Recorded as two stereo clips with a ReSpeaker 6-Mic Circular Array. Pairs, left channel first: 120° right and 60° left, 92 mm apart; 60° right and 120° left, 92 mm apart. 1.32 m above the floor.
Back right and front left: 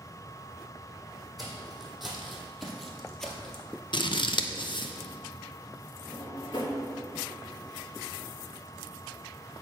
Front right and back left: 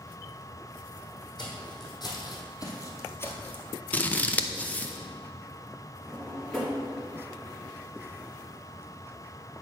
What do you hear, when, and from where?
1.4 s footsteps: 30° right, 3 m; by 3.6 s 60° right, 1.3 m
3.9 s scissors: 130° right, 0.6 m
6.1 s a drawer: 145° right, 2.0 m